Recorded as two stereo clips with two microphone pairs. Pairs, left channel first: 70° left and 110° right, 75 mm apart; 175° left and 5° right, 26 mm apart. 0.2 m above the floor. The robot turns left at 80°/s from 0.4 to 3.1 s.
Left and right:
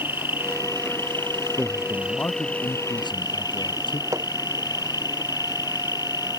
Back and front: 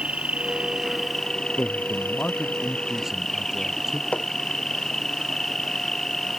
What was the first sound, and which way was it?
An insect, 50° right.